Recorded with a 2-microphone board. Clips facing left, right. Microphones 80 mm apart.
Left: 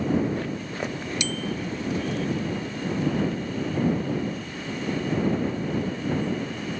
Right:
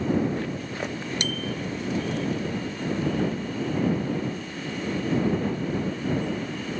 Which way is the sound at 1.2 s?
50° right (ahead or behind).